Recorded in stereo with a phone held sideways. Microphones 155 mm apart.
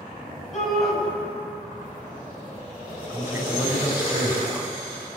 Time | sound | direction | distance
0.5 | a shout | centre (ahead or behind) | 8.5 m
3.1 | a man speaking | 15° right (ahead or behind) | 6 m